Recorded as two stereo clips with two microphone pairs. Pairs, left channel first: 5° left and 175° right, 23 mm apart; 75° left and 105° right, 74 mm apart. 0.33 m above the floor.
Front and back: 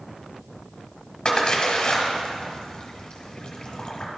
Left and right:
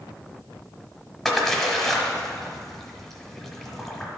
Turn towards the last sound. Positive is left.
turn(degrees=-15)